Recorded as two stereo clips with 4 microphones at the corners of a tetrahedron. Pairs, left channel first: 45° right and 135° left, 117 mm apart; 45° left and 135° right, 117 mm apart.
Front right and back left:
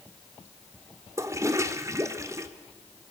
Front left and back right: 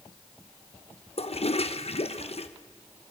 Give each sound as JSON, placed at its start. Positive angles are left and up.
{"t": 1.2, "sound": "a toilet flushing", "azimuth_deg": 75, "distance_m": 1.0}